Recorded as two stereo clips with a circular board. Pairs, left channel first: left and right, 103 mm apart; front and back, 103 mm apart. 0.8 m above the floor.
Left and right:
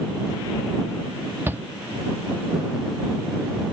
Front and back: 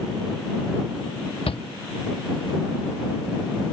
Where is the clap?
No clap in this recording.